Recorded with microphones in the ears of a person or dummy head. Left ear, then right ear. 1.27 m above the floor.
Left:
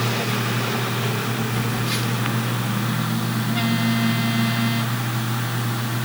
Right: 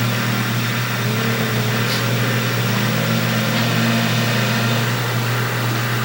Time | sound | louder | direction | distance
1.5 | a phone buzzing | right 5 dB | 35° right (ahead or behind) | 1.5 m